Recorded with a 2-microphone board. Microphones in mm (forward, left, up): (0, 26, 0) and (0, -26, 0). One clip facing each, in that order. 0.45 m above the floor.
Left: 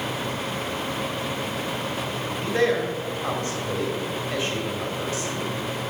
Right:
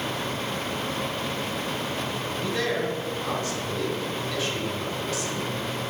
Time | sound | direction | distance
2.3 | a man speaking | 30° left (ahead or behind) | 2.0 m